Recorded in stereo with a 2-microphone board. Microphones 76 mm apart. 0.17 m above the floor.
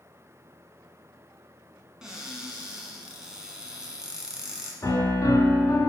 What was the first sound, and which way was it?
A cupboard door, 10° right (ahead or behind).